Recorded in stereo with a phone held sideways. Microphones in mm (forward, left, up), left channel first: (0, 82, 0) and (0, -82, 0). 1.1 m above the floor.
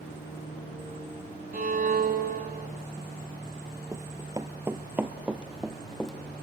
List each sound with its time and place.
1.5 s a violin: 60° right (ahead or behind), 1.7 m
3.9 s running footsteps: 20° right (ahead or behind), 1.3 m; by 6.1 s centre (ahead or behind), 1.8 m